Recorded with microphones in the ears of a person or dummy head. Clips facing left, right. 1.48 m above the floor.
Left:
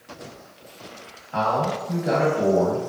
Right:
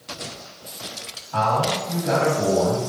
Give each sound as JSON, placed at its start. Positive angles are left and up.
{"t": 1.3, "sound": "a man speaking", "side_deg": 30, "distance_m": 1.5}